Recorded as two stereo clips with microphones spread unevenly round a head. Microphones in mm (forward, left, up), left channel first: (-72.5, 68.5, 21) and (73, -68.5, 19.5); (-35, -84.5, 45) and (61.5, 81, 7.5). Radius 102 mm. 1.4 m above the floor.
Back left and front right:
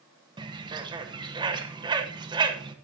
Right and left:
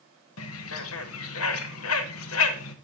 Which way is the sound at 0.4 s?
110° right.